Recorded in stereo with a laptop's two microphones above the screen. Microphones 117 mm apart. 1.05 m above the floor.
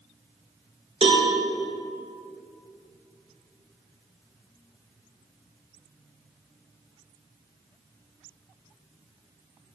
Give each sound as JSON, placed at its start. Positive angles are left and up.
{"t": 1.0, "sound": "a cowbell", "side_deg": -60, "distance_m": 0.9}